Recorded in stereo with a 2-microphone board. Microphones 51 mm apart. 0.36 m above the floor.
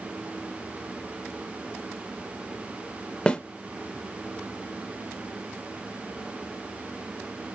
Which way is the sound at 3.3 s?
20° left (ahead or behind).